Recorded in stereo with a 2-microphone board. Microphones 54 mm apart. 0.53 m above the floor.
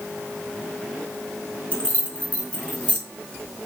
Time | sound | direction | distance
1.7 | keys jangling | 25° left (ahead or behind) | 4.5 m